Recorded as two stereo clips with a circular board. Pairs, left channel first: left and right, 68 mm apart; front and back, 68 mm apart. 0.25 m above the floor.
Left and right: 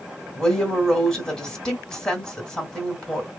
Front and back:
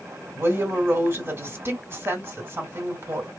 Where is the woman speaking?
165° left, 1.7 m.